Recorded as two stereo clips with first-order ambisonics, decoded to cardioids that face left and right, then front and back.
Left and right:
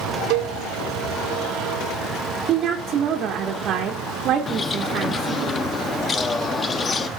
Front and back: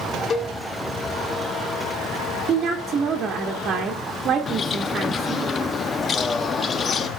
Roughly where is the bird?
Ahead left.